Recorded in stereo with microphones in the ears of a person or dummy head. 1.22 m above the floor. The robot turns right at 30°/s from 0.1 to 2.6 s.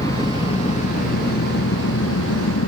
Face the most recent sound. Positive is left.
turn(degrees=95)